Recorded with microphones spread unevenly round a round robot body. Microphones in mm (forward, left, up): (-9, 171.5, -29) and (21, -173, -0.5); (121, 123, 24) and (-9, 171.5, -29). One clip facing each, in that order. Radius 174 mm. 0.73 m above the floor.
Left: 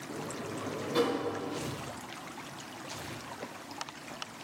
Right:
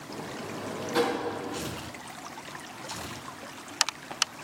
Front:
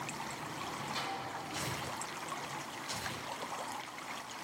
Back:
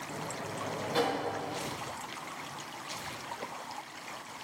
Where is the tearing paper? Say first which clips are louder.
Right 1 dB, back 2 dB; 40° right, 5.5 m.